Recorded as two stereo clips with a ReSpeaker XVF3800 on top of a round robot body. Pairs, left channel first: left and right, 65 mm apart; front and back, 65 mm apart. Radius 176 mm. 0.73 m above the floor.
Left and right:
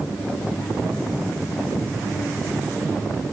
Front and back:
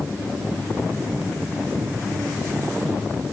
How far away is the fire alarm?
No fire alarm in this recording.